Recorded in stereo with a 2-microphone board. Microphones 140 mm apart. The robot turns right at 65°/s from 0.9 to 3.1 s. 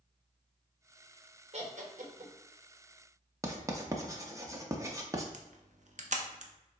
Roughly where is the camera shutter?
Right.